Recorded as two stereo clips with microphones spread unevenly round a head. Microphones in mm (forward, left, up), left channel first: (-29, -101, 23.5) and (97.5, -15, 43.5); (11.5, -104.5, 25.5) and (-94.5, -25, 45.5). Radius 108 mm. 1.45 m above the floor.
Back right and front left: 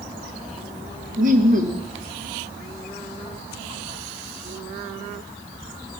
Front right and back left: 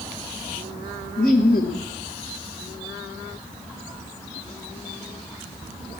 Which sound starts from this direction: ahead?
Laughter, at 1.2 s.